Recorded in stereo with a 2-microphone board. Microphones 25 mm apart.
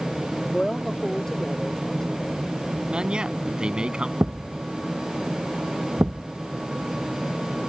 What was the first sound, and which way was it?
A woman speaking, 15° left (ahead or behind).